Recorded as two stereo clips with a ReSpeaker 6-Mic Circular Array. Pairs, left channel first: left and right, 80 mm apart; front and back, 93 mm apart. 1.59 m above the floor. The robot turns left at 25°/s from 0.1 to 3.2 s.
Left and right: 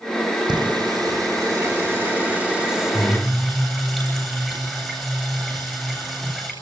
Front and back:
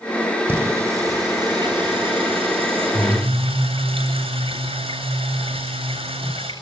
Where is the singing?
115° right, 9.5 m; by 6.5 s 175° left, 9.5 m.